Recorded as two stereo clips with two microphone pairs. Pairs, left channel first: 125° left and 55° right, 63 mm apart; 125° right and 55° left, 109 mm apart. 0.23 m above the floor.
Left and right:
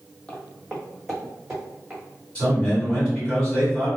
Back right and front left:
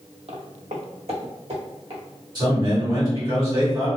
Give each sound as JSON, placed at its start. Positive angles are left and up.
{"t": 0.3, "sound": "footsteps", "azimuth_deg": 50, "distance_m": 0.6}
{"t": 2.4, "sound": "a man speaking", "azimuth_deg": 60, "distance_m": 1.5}